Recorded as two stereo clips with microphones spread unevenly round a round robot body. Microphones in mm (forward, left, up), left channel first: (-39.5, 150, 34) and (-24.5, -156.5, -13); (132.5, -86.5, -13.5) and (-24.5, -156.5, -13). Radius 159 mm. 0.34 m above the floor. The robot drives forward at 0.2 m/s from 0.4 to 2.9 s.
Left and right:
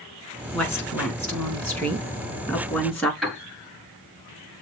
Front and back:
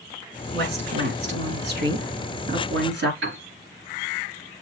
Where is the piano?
175° right, 6 m.